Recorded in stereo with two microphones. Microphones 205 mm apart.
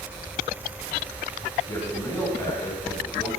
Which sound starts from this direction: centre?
A man speaking, at 1.7 s.